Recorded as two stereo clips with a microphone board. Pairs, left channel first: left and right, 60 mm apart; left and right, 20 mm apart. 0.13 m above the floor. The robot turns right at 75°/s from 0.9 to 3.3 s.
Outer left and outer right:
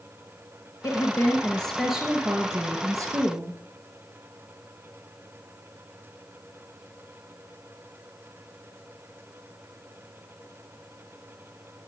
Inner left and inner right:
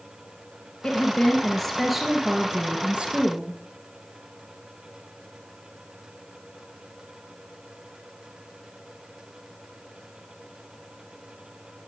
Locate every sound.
0.8 s a woman speaking: 115° left, 2.5 m; by 3.6 s 65° right, 2.5 m